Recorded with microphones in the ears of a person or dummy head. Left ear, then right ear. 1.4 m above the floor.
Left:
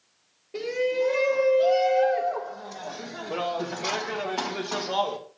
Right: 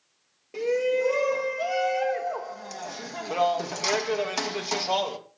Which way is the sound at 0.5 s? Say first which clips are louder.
Right 1 dB; 40° right (ahead or behind).